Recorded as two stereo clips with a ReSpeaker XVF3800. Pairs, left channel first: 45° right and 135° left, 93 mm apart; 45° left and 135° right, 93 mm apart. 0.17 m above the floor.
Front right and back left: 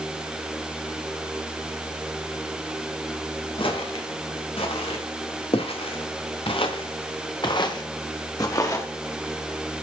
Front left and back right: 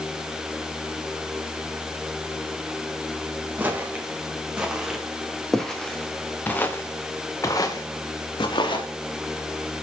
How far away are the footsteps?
About 3 m.